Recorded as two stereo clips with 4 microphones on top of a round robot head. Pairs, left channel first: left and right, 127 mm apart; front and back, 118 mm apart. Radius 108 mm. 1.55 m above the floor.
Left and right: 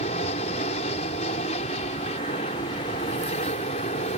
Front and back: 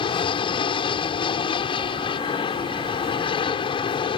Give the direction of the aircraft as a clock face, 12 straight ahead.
11 o'clock.